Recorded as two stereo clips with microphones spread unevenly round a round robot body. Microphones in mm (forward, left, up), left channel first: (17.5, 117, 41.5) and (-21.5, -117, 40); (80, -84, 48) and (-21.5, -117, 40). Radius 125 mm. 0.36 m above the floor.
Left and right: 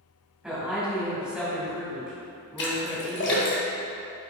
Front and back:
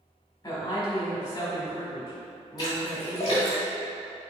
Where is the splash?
65° left, 1.1 m.